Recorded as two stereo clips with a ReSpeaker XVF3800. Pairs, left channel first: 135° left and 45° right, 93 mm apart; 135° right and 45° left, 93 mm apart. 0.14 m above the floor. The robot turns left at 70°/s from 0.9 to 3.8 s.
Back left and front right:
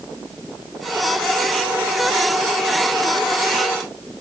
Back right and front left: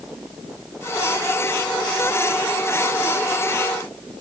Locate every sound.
Only background noise.